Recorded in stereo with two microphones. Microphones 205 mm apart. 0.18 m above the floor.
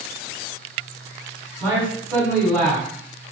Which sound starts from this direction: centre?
A man speaking, at 1.6 s.